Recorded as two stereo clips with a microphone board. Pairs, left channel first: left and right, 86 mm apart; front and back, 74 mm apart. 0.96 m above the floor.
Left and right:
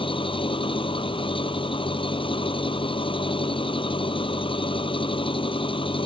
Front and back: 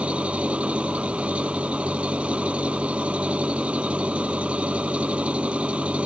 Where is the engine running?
105° left.